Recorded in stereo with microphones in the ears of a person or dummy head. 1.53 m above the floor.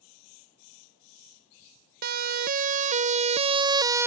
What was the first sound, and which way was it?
A siren, 50° right (ahead or behind).